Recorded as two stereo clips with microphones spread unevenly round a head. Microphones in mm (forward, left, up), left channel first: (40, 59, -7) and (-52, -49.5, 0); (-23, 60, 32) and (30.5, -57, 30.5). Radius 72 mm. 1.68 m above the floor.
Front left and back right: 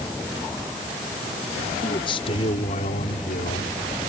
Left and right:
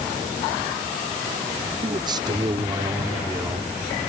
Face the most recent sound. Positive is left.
turn(degrees=15)